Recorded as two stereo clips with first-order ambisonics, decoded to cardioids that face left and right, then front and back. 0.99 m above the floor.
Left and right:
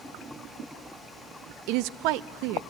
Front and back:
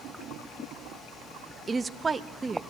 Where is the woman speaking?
105° right, 0.8 m.